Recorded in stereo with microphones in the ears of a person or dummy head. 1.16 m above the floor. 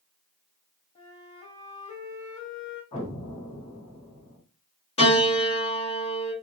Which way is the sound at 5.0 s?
35° left (ahead or behind).